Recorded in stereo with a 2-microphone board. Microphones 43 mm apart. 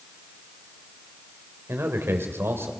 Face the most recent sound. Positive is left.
turn(degrees=-70)  # may be behind; listen again after turning